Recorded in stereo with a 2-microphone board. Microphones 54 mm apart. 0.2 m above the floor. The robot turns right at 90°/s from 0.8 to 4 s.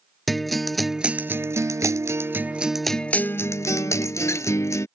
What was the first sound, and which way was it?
A guitar, 175° left.